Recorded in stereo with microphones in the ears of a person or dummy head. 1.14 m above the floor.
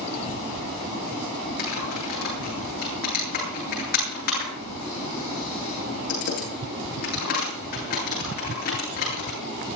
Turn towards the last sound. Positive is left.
turn(degrees=45)  # may be behind; listen again after turning